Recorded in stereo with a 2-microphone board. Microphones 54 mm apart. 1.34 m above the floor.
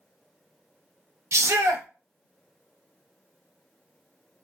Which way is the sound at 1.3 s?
65° right (ahead or behind).